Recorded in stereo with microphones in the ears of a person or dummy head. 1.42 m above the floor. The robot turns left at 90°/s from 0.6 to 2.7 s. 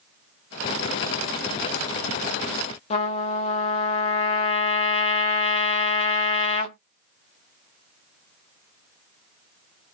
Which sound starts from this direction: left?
A trumpet, at 2.9 s.